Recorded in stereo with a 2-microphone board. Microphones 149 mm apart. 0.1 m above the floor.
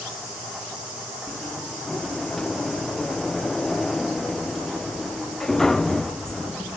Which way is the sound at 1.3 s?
5° left (ahead or behind).